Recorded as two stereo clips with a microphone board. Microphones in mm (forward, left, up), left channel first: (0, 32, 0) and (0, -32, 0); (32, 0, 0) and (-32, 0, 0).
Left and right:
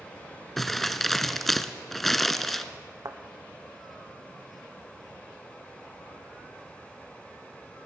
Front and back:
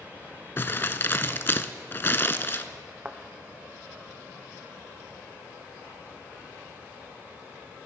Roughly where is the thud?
Behind right.